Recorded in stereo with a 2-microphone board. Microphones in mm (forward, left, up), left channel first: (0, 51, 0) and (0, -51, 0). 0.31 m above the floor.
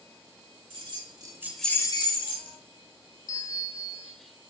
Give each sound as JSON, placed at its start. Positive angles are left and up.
{"t": 0.7, "sound": "keys jangling", "side_deg": -60, "distance_m": 1.3}
{"t": 3.3, "sound": "a bell", "side_deg": 35, "distance_m": 0.6}